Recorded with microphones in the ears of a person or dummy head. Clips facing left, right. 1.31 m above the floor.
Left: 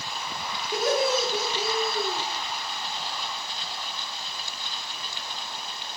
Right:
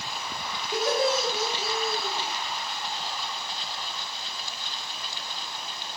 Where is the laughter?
Centre (ahead or behind), 1.3 m; by 2.2 s 65° left (ahead or behind), 1.2 m.